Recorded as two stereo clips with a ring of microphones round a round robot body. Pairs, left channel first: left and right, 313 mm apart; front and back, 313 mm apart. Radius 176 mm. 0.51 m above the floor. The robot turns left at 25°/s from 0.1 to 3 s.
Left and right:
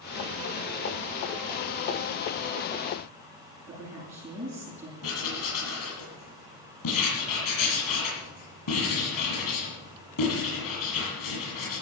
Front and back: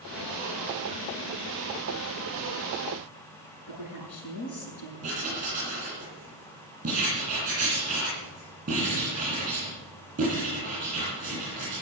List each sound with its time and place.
3.7 s a woman speaking: 5° right, 8 m
5.0 s writing: 110° left, 9 m